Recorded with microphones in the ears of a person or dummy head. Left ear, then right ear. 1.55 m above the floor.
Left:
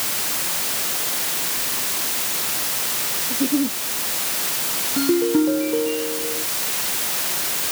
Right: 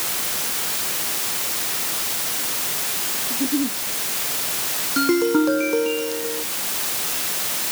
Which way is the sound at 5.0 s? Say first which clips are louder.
Right 1 dB; 55° right (ahead or behind).